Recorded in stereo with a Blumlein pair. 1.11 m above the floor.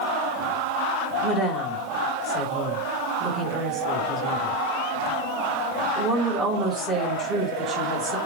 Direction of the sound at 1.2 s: 20° right.